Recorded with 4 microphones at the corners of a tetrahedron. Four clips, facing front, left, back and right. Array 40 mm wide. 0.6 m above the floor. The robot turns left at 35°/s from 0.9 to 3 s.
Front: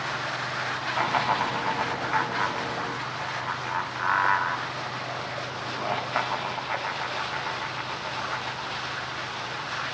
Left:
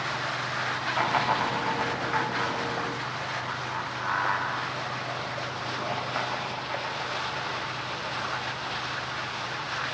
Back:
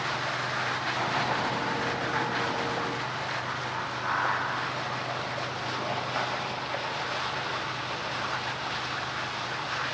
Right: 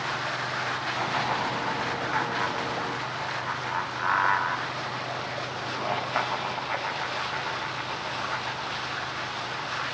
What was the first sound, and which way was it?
Laughter, 40° left.